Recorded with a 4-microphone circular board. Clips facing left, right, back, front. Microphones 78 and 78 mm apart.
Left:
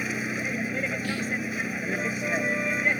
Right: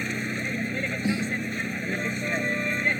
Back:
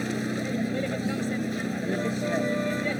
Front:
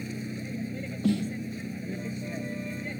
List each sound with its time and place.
0.0 s a vehicle: 175° left
1.0 s a snare drum: 20° right